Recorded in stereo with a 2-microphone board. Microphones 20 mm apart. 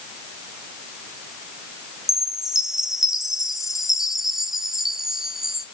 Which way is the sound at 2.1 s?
20° right (ahead or behind).